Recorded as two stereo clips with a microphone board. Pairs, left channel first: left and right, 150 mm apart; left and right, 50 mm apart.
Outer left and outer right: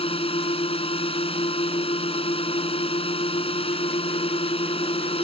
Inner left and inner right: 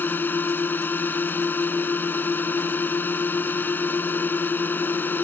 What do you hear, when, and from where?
0.0 s a drone: 40° left (ahead or behind)